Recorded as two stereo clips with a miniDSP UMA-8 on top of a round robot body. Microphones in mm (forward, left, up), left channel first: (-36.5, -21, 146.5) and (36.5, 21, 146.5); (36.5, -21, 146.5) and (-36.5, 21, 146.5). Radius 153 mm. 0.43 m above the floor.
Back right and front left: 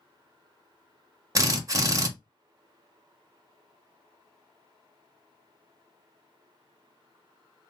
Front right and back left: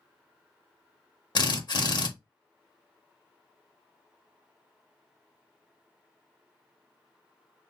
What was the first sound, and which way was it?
A drill, 10° right.